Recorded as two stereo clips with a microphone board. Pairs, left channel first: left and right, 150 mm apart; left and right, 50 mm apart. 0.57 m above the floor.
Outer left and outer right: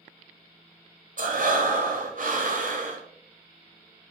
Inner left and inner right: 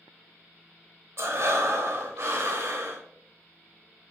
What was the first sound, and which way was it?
Breathing, 55° right (ahead or behind).